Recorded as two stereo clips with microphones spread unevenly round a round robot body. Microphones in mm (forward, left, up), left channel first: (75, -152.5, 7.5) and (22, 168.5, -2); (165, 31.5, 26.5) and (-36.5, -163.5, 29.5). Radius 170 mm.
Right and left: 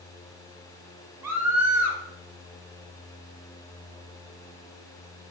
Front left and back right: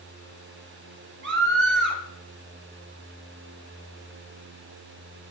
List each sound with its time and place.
1.2 s a scream: straight behind, 1.8 m